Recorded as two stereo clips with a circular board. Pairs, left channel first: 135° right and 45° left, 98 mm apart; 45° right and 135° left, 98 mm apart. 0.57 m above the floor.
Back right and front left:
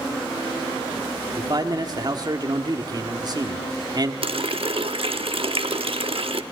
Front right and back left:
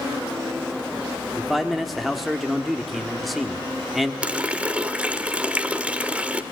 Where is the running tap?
60° left, 0.8 m.